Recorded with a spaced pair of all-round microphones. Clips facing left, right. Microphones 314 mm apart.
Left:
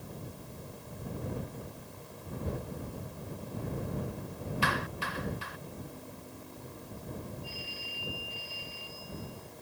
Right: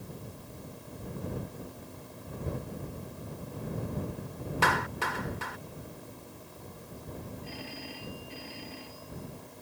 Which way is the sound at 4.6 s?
90° right.